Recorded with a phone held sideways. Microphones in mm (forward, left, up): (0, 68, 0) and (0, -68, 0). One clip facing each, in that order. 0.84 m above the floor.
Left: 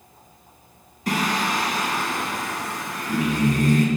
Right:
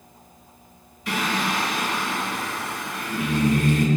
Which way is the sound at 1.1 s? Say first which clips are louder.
Left 2 dB; 40° left (ahead or behind).